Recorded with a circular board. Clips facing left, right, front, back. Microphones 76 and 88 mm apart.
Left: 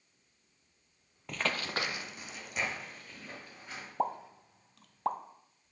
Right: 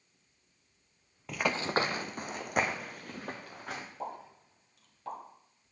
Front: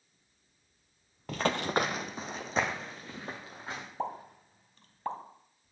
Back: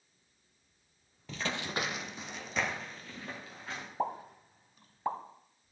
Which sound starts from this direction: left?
A pop, at 4.0 s.